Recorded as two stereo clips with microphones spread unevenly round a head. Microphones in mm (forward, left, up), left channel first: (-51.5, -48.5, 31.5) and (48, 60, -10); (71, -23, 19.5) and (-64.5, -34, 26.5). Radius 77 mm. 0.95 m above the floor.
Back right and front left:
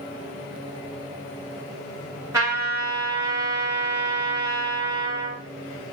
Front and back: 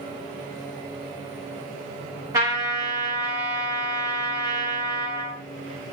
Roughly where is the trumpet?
Behind left.